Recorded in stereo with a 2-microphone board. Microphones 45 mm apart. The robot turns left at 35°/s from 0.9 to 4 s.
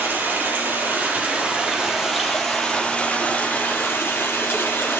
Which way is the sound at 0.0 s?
130° right.